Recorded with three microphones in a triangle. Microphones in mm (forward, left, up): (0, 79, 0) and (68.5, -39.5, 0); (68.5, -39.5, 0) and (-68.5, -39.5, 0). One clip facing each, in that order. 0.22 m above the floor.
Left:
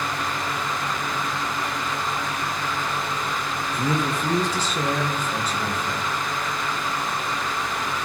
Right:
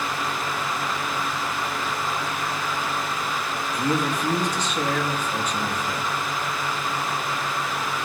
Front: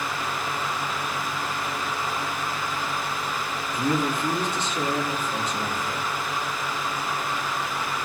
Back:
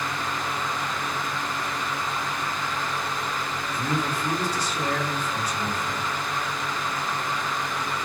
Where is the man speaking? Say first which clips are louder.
Right 1 dB, front 4 dB; 65° left, 3.5 m.